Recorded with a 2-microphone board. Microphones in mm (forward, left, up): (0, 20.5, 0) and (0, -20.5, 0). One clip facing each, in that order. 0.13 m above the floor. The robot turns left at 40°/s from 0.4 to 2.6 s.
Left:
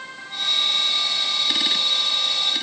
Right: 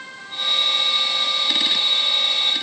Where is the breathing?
No breathing in this recording.